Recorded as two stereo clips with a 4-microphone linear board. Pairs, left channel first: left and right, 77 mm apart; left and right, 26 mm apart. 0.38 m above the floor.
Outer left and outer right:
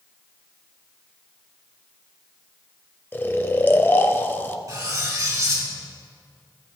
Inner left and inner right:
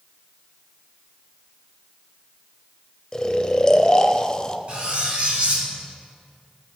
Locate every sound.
3.1 s snoring: 30° left (ahead or behind), 0.5 m
4.7 s cutlery clinking: 50° right (ahead or behind), 2 m